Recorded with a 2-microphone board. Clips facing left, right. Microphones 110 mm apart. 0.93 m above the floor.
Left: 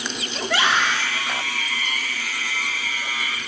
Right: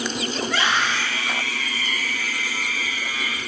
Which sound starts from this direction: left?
A scream, at 0.4 s.